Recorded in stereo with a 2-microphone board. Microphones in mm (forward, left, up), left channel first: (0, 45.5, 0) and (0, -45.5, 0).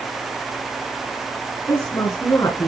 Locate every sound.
1.7 s a woman speaking: 30° left (ahead or behind), 4 m